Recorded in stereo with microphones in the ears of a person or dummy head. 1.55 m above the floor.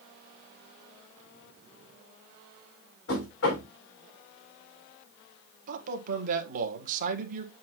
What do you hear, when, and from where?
3.1 s knocking: 75° left (ahead or behind), 3.5 m
5.7 s a man speaking: 45° right (ahead or behind), 1.6 m